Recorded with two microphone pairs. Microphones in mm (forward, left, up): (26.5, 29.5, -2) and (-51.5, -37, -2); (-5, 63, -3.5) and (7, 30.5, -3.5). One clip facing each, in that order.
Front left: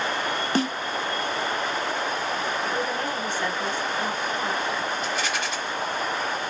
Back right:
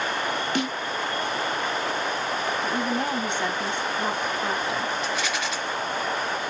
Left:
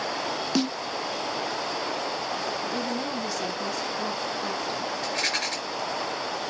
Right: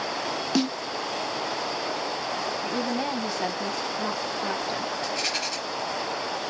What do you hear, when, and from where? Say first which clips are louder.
0.6 s a snare drum: front left 5 dB, right 1 dB; 25° left, 0.6 m
2.6 s a woman speaking: back right 1 dB, right 2 dB; 95° right, 0.9 m
5.0 s a rattle: even, left 1 dB; 95° left, 3 m